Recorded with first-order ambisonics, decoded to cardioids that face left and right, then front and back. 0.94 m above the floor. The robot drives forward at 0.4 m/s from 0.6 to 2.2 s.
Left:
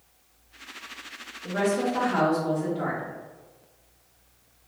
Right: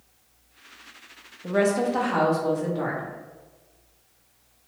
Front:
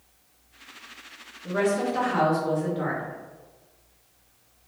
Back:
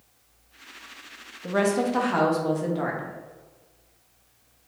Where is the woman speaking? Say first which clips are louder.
Right 3 dB, back 1 dB; 145° right, 0.6 m; by 3.1 s 160° right, 0.8 m.